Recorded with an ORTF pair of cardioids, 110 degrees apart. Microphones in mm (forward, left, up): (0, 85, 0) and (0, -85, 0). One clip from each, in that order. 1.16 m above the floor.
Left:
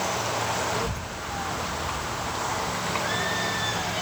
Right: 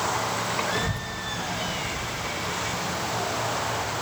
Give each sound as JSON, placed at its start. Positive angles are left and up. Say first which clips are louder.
{"t": 0.7, "sound": "a child speaking", "louder": "right 1 dB", "azimuth_deg": -15, "distance_m": 0.9}